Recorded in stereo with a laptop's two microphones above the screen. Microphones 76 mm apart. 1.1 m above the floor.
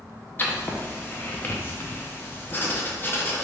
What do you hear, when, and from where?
0.4 s writing: 30° left (ahead or behind), 0.5 m